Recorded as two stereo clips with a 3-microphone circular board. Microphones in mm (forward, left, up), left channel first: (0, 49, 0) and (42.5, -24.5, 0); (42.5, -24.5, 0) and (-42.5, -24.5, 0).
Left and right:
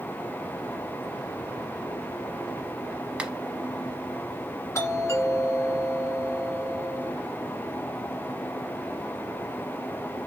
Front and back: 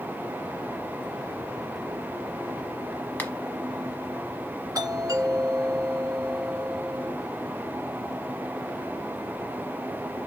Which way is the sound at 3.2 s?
5° right.